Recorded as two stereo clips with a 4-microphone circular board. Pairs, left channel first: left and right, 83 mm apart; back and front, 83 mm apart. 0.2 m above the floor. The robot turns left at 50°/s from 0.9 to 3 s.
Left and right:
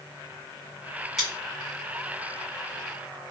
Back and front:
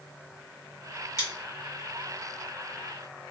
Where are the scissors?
Straight behind, 1.8 m; by 1.3 s 175° left, 1.8 m.